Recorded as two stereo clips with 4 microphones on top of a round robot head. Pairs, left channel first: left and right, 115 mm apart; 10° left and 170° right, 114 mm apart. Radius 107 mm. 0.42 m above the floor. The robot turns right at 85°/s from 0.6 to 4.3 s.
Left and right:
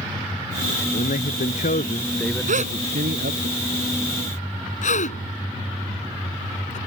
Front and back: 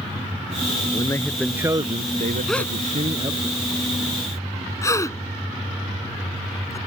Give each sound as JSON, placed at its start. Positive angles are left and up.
{"t": 0.9, "sound": "a man speaking", "azimuth_deg": 60}
{"t": 2.5, "sound": "a gasp", "azimuth_deg": -80}